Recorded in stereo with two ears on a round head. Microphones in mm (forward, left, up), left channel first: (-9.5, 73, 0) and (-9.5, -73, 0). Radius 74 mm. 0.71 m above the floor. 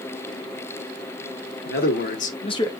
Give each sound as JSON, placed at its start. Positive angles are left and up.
{"t": 1.6, "sound": "a man speaking", "side_deg": 65, "distance_m": 1.8}